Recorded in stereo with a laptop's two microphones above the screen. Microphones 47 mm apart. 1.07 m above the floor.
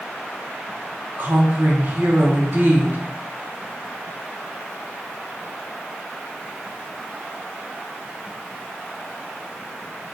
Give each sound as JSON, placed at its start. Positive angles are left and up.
{"t": 1.2, "sound": "a woman speaking", "side_deg": -40, "distance_m": 0.7}